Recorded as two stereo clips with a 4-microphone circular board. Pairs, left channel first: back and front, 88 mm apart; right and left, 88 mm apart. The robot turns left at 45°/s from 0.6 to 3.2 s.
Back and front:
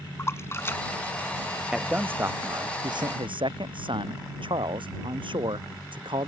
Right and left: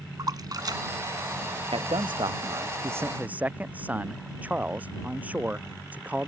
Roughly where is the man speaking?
Left.